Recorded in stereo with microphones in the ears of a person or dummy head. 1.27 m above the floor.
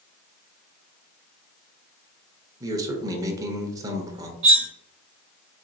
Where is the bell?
I don't hear a bell.